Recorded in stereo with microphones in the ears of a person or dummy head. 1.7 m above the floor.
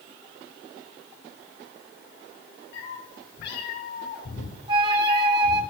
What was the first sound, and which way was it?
A cat meowing, 65° left (ahead or behind).